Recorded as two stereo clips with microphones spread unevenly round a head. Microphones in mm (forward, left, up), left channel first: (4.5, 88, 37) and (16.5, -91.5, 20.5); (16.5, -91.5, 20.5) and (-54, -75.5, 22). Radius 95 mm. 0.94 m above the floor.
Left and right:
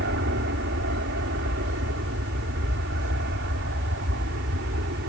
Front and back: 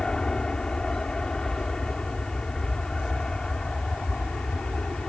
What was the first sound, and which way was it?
An aircraft, 90° right.